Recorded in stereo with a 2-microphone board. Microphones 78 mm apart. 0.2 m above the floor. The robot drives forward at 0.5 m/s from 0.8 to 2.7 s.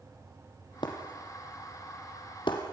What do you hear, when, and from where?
0.8 s breaking glass: 70° left (ahead or behind), 4 m; by 2.6 s 80° left, 4 m